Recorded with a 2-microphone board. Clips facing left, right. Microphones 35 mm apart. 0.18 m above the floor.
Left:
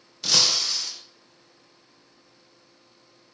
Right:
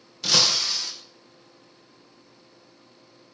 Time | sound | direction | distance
0.2 | breaking glass | 5° right (ahead or behind) | 3 m